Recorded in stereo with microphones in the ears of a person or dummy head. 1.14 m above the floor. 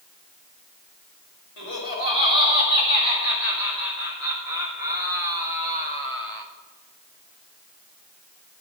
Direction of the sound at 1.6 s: 75° left (ahead or behind).